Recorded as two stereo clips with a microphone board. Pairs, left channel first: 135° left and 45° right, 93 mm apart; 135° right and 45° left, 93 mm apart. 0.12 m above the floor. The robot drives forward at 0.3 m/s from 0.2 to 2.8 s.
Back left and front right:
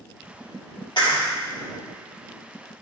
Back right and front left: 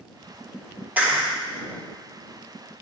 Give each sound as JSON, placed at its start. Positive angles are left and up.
{"t": 1.0, "sound": "a clap", "azimuth_deg": 115, "distance_m": 2.0}